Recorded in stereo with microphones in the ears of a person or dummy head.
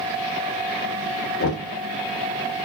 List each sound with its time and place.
1.4 s knocking: 55° left (ahead or behind), 0.9 m